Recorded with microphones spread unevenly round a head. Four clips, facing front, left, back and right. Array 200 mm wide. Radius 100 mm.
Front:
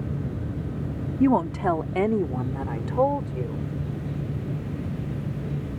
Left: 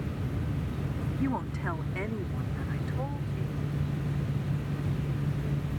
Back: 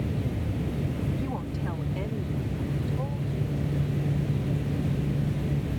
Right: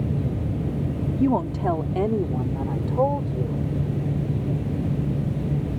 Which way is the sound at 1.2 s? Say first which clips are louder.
Right 11 dB, front 12 dB; 30° right.